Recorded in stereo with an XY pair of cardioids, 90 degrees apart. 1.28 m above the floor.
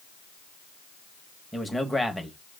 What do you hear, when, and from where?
1.5 s a man speaking: 5° left, 1.0 m